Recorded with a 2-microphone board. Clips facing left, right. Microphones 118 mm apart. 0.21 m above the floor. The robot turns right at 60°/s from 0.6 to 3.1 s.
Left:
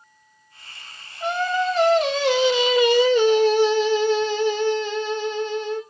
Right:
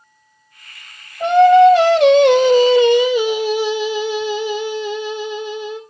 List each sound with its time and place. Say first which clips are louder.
1.2 s singing: right 15 dB; 125° right, 1.2 m; by 5.8 s 10° right, 1.2 m